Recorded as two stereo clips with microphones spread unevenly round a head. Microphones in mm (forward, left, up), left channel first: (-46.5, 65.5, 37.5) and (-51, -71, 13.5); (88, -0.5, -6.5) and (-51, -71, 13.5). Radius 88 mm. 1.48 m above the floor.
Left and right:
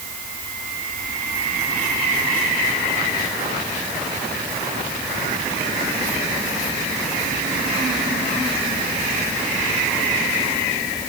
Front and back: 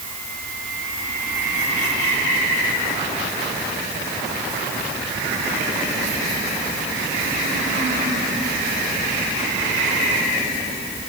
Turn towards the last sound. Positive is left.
No sound to turn to.